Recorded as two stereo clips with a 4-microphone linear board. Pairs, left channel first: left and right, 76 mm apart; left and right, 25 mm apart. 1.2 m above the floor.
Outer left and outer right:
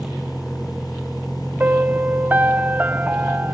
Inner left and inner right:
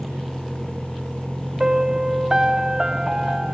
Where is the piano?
25° right (ahead or behind).